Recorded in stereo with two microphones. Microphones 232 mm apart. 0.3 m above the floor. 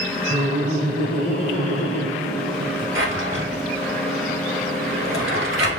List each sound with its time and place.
0.3 s laughter: 60° right (ahead or behind), 2 m
3.0 s a drawer: 60° right (ahead or behind), 1.5 m